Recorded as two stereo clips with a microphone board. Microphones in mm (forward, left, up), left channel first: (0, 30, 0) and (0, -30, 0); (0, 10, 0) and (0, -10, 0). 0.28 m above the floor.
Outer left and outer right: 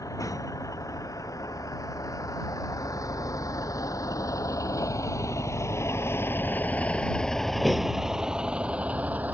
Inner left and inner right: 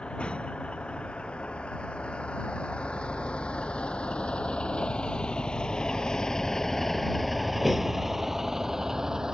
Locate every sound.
0.0 s a vehicle: 80° left; by 9.3 s 30° right (ahead or behind)